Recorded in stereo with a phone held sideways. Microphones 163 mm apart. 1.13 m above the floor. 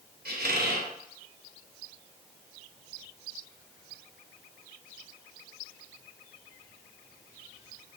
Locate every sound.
0.2 s a squeak: 70° right (ahead or behind), 0.9 m